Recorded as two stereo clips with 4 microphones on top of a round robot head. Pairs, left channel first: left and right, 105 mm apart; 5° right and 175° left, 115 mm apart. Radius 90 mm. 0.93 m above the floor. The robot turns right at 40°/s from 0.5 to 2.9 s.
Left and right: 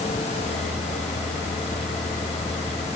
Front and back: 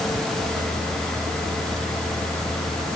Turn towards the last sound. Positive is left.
No sound to turn to.